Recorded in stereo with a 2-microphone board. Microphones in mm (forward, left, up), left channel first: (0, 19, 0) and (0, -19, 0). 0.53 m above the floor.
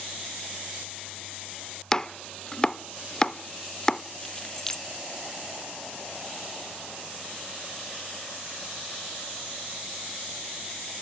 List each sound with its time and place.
1.9 s chopping: 15° left (ahead or behind), 0.6 m
4.2 s keys jangling: 15° left (ahead or behind), 0.7 m